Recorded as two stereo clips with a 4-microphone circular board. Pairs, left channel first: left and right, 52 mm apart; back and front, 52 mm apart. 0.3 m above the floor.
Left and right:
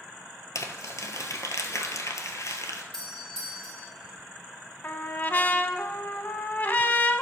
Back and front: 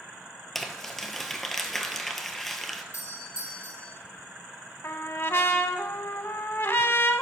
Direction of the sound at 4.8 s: 140° left.